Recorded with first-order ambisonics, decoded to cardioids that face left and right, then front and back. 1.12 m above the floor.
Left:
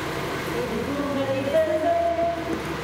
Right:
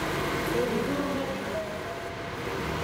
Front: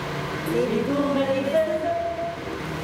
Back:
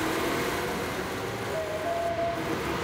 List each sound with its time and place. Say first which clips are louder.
0.5 s laughter: even, front 6 dB; 5° right; by 2.7 s 105° left